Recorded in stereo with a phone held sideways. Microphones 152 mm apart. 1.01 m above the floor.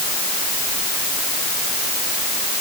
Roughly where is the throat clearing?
No throat clearing in this recording.